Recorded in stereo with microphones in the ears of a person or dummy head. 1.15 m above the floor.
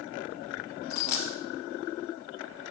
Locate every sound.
0.9 s a dropped coin: 55° left (ahead or behind), 1.0 m